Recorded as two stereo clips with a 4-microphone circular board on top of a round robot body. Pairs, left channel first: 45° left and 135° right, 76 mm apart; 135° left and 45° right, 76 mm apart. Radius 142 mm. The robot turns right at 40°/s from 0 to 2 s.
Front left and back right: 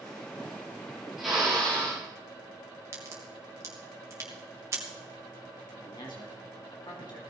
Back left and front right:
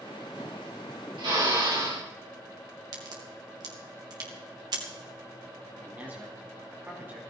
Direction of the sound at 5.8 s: 25° left.